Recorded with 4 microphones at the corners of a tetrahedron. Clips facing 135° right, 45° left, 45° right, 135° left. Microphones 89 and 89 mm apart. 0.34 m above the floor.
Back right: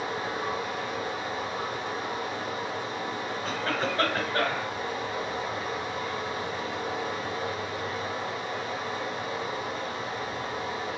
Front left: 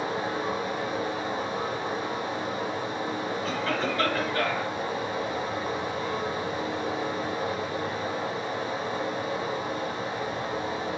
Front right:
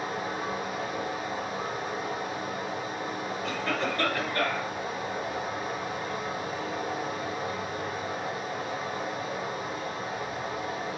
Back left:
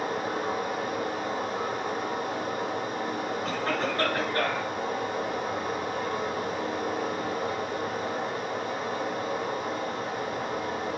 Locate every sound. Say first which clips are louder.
0.0 s running water: front left 2 dB, back left 3 dB; 105° left, 1.0 m
3.4 s a cough: even, even; 175° left, 2.0 m